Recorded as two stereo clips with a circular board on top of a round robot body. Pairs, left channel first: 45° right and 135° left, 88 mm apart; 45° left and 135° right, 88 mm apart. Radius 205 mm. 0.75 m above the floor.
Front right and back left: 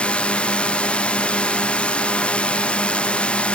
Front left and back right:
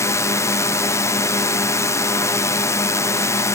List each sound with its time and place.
0.0 s a drone: 25° left